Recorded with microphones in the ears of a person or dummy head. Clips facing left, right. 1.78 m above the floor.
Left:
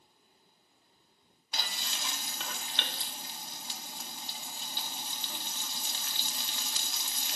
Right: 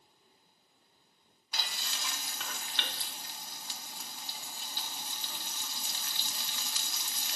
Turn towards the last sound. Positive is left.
turn(degrees=25)  # may be behind; listen again after turning